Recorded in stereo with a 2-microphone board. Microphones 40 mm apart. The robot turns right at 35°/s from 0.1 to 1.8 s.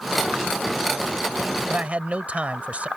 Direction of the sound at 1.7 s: 35° right (ahead or behind).